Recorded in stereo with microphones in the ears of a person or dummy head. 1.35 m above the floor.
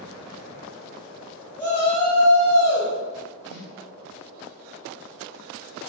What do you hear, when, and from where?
1.6 s a shout: 15° left (ahead or behind), 1.1 m; by 2.9 s 65° left (ahead or behind), 1.5 m
3.5 s a snare drum: 75° left (ahead or behind), 1.9 m